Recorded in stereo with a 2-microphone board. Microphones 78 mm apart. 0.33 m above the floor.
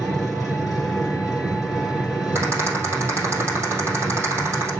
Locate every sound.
0.0 s an engine running: 5° right (ahead or behind), 4.5 m
2.4 s a rattle: 30° right (ahead or behind), 4 m